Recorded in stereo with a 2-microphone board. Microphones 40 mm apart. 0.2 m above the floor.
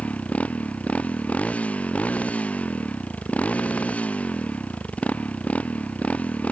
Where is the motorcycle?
30° left (ahead or behind).